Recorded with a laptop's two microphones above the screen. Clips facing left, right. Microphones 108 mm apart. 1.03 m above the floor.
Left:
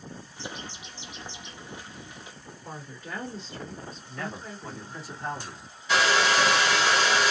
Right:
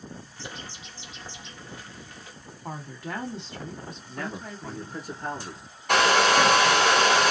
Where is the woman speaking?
70° right (ahead or behind), 1.5 m.